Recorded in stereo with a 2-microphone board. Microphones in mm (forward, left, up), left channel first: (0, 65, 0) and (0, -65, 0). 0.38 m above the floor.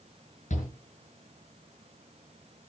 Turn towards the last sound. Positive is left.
turn(degrees=70)  # may be behind; listen again after turning